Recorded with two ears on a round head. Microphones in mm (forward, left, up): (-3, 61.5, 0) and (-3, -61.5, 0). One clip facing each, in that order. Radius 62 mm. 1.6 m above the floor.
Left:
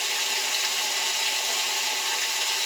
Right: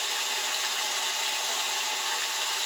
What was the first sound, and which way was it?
Running water, 20° left (ahead or behind).